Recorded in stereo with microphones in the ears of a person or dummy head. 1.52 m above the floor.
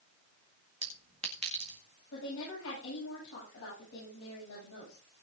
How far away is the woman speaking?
About 9.5 m.